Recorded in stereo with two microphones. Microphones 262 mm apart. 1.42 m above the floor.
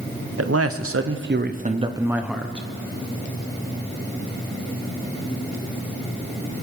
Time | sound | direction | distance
0.4 | a man speaking | 65° right (ahead or behind) | 0.9 m